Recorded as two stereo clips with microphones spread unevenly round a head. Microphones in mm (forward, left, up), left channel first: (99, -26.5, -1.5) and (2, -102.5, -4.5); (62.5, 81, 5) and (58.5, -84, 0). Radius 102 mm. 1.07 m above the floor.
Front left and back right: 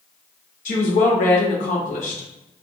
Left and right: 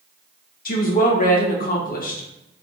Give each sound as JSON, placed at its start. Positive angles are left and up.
{"t": 0.7, "sound": "a woman speaking", "azimuth_deg": 60, "distance_m": 1.4}